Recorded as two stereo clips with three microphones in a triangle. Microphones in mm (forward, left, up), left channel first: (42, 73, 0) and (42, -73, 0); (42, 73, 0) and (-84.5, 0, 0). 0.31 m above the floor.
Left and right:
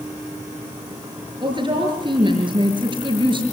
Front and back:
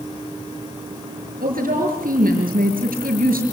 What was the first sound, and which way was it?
A woman speaking, 145° right.